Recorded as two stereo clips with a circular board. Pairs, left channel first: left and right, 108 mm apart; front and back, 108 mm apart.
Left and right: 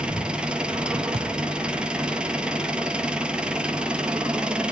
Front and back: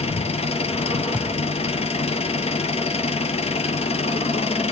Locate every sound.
0.0 s an engine running: 10° right, 0.7 m
1.1 s a thud: 75° right, 1.3 m